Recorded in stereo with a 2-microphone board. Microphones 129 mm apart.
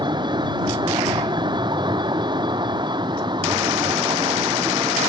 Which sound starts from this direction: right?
A vehicle, at 0.0 s.